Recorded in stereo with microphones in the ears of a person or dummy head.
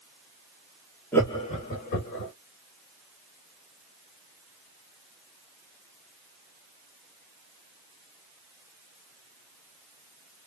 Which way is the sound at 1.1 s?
10° left (ahead or behind).